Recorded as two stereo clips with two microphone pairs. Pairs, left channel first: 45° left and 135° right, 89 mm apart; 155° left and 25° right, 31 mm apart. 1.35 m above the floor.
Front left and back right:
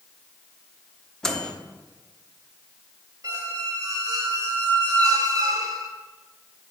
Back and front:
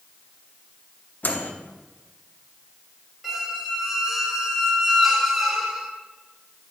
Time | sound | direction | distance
1.2 | a microwave | 130° left | 0.8 m
3.2 | a squeak | 105° right | 1.0 m